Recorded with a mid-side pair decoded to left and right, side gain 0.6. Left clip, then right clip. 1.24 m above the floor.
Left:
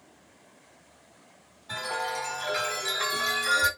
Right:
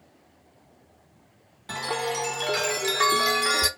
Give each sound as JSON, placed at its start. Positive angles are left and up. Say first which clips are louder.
{"t": 1.7, "sound": "a chime", "louder": "right 3 dB", "azimuth_deg": -70, "distance_m": 2.0}